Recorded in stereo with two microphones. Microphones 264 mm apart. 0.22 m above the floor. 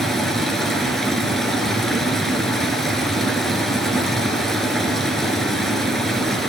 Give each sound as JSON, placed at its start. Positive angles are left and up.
{"t": 0.0, "sound": "running water", "side_deg": 0, "distance_m": 1.5}